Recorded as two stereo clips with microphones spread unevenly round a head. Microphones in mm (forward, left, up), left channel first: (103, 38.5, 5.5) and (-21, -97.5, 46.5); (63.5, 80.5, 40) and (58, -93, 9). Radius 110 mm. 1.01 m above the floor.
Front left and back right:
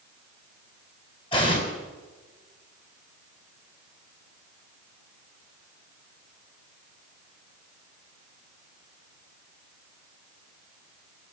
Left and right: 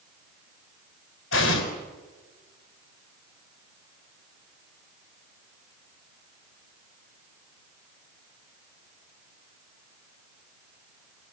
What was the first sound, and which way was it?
An explosion, 115° left.